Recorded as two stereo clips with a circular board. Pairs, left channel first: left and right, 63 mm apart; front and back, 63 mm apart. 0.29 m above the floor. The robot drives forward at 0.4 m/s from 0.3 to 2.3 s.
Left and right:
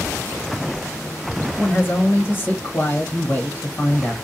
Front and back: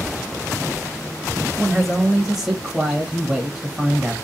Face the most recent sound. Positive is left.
turn(degrees=100)